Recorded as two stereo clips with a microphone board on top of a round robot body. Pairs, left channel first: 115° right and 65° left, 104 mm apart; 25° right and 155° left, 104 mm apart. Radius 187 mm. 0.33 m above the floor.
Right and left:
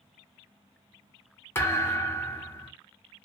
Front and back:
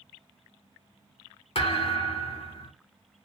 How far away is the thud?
About 1.1 m.